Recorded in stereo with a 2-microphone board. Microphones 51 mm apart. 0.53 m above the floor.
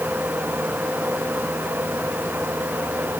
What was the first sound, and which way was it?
Only background noise.